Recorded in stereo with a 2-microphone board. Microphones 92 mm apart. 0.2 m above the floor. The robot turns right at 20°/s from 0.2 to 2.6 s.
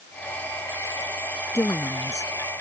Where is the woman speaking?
35° left (ahead or behind); by 2.6 s 50° left (ahead or behind).